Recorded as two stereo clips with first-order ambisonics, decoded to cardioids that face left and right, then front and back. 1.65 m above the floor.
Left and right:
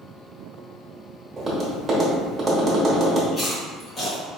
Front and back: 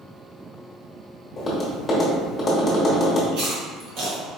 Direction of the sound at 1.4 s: 55° right.